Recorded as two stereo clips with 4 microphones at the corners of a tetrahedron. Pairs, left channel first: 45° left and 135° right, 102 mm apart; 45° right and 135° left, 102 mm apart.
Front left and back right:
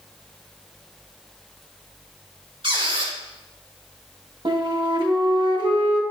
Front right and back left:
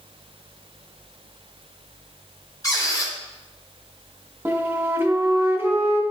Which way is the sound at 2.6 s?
100° right.